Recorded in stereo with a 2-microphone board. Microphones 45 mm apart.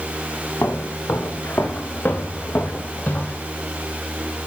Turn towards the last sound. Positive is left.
turn(degrees=35)  # may be behind; listen again after turning